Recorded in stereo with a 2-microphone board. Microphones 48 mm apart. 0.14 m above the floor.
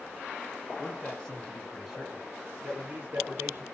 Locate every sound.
0.8 s a man speaking: 20° left (ahead or behind), 1.7 m; by 3.6 s 40° right (ahead or behind), 2 m